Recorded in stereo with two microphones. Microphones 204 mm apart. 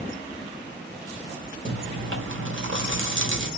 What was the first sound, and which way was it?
Chewing, 75° right (ahead or behind).